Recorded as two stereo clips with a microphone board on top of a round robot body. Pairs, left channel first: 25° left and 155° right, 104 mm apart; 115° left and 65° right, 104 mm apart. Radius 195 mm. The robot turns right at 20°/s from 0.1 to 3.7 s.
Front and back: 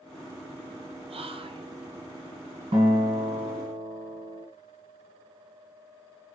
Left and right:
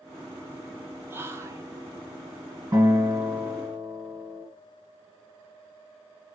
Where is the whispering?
140° right, 0.6 m; by 1.7 s 125° right, 0.6 m.